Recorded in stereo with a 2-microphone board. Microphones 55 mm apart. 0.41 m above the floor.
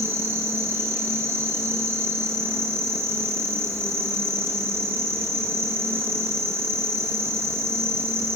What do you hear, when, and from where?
0.0 s an insect: 45° right (ahead or behind), 2.5 m